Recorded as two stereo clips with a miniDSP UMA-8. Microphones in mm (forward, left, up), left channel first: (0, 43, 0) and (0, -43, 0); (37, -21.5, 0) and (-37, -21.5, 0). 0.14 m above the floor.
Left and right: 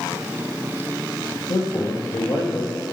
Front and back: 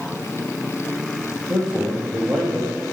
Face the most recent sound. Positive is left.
turn(degrees=80)